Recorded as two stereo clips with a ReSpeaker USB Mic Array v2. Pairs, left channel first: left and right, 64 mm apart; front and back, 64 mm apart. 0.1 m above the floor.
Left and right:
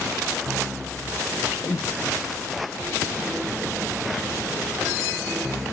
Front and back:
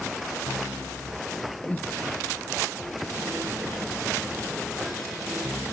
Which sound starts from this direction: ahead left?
Breathing, at 1.6 s.